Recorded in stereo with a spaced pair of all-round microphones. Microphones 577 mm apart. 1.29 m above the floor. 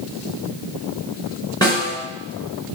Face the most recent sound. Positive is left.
turn(degrees=5)  # may be behind; listen again after turning